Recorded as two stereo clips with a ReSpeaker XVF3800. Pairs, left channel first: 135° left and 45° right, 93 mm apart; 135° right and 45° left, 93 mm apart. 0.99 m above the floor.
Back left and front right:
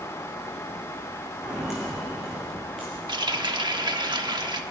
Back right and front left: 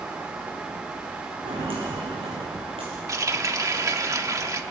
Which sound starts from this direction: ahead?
A running tap, at 3.1 s.